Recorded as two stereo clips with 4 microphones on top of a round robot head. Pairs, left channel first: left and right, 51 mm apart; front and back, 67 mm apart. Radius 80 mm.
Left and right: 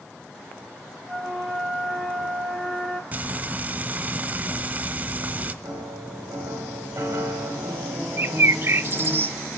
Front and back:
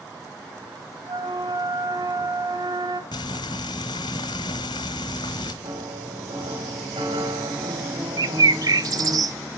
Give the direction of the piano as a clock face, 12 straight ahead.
5 o'clock.